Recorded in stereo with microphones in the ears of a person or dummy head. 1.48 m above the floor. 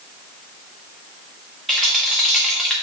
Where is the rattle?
5° left (ahead or behind), 1.5 m.